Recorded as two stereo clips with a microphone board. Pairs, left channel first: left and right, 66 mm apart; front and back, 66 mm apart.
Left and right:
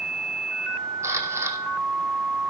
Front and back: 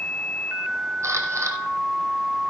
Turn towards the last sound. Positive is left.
turn(degrees=-135)